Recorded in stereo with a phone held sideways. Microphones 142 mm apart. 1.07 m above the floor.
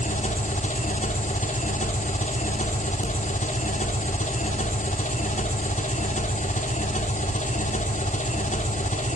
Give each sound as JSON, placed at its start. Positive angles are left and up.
{"t": 0.0, "sound": "an engine running", "side_deg": 60, "distance_m": 2.5}